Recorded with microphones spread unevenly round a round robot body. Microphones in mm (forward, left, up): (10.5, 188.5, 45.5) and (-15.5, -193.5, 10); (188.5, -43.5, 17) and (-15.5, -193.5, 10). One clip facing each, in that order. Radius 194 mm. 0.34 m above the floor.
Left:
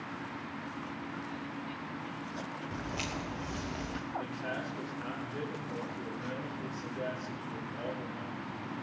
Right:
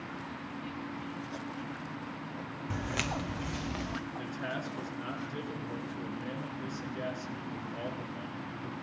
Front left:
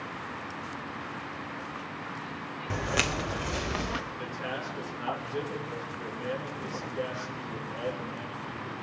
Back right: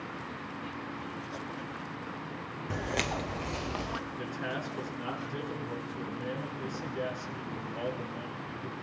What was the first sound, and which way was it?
Footsteps, 55° right.